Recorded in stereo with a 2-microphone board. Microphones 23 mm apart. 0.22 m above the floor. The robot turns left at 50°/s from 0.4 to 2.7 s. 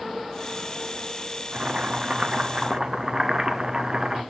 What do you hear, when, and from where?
1.5 s boiling: 90° right, 1.0 m; by 4.2 s 150° right, 1.0 m